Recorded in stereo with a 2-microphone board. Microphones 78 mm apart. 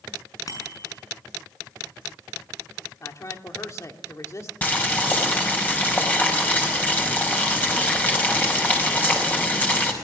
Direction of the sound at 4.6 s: 20° left (ahead or behind).